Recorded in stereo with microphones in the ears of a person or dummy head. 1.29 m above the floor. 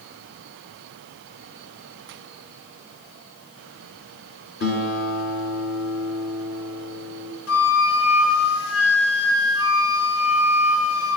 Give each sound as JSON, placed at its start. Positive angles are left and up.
{"t": 4.6, "sound": "a guitar", "side_deg": 55, "distance_m": 2.5}
{"t": 7.5, "sound": "a flute", "side_deg": 75, "distance_m": 1.3}